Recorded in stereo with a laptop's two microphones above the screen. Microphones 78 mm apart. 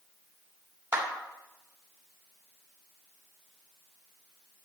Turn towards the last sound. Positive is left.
turn(degrees=-30)  # may be behind; listen again after turning